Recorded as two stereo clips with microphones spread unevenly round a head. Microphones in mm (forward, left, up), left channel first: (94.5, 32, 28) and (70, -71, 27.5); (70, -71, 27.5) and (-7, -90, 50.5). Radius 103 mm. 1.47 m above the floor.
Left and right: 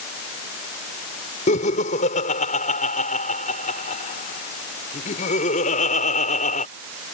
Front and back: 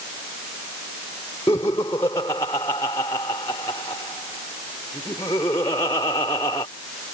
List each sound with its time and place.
1.5 s laughter: 85° left